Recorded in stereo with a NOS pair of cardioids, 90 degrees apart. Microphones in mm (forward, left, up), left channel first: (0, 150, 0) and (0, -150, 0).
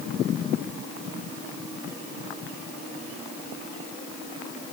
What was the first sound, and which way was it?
Only background noise.